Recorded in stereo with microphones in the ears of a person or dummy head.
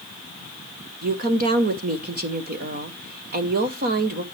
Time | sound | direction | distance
1.0 | a woman speaking | 45° right (ahead or behind) | 0.8 m